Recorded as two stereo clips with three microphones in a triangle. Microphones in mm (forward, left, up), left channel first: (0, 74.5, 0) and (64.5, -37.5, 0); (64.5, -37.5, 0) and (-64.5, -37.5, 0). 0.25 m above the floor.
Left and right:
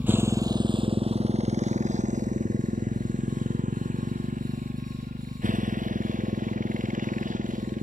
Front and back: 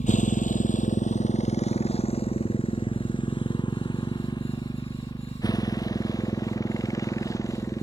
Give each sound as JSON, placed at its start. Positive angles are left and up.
{"t": 0.0, "sound": "a motorcycle", "azimuth_deg": 20}